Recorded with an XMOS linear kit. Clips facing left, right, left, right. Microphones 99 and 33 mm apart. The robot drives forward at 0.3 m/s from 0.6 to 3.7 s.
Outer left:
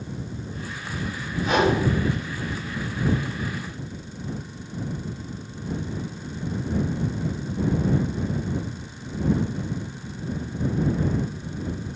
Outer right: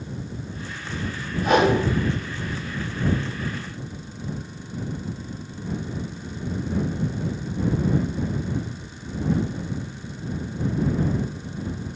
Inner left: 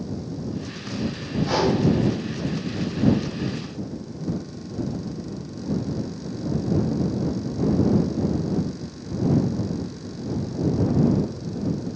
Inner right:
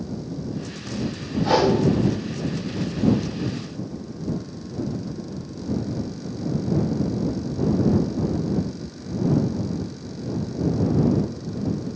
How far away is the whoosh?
About 1.0 m.